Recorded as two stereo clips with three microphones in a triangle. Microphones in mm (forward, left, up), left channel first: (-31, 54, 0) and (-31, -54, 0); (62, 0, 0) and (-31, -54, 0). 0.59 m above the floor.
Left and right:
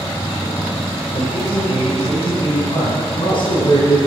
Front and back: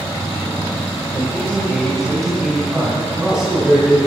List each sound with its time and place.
1.1 s a man speaking: 105° left, 2.5 m; by 4.0 s 125° left, 5 m